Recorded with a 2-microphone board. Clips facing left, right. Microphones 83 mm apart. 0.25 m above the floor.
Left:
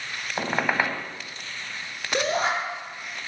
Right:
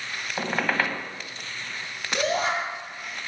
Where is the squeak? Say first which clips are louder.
Left 1 dB; 10° left (ahead or behind), 0.7 m.